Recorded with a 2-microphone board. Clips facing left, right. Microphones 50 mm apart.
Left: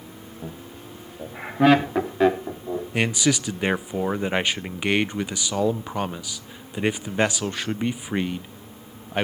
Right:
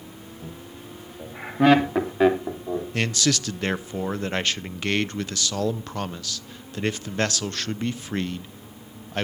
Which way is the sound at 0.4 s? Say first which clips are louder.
Left 3 dB; 25° left (ahead or behind).